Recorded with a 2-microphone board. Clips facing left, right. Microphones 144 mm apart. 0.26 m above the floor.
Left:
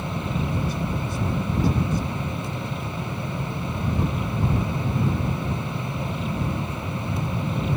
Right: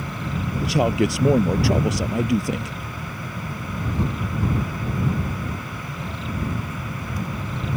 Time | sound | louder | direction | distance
0.6 | a man speaking | right 8 dB | 70° right (ahead or behind) | ?